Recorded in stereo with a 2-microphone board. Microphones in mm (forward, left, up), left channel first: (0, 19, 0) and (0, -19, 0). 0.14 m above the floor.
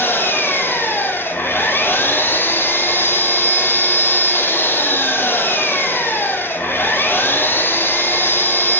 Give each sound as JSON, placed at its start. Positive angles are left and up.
{"t": 0.0, "sound": "an engine running", "side_deg": 70, "distance_m": 1.3}